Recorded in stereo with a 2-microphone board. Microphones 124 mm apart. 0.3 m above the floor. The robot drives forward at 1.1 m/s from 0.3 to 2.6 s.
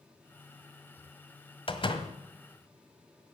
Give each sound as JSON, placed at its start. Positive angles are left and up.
{"t": 1.7, "sound": "a door slam", "side_deg": 45, "distance_m": 1.5}